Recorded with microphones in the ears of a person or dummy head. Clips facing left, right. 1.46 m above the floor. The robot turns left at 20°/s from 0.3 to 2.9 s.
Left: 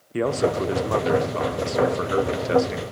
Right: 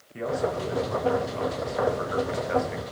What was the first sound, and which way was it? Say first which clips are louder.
A man speaking: left 6 dB; 95° left.